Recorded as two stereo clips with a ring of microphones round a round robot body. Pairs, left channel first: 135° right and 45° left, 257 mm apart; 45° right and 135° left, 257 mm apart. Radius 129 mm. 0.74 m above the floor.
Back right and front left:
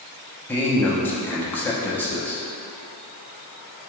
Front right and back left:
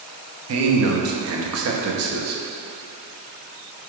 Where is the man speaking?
145° left, 0.8 m.